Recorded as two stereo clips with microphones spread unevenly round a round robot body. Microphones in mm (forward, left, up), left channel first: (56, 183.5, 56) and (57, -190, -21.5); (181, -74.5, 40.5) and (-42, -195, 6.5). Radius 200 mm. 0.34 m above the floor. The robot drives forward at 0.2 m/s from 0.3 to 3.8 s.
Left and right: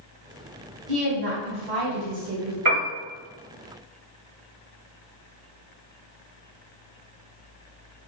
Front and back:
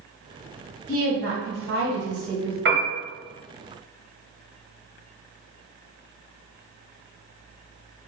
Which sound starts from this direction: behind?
A woman speaking, at 0.9 s.